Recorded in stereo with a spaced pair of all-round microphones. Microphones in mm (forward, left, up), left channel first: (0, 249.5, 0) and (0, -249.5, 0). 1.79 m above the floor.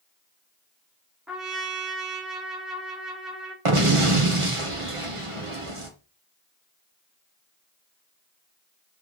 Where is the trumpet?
Centre (ahead or behind), 2 m.